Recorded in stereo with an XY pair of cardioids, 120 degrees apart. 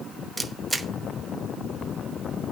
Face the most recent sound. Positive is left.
turn(degrees=-10)